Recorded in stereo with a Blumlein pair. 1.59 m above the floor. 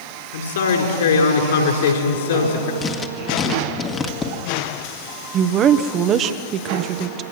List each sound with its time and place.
0.3 s a man speaking: 60° left, 4.5 m
2.8 s writing: 20° left, 1.7 m
5.3 s a woman speaking: 30° right, 1.1 m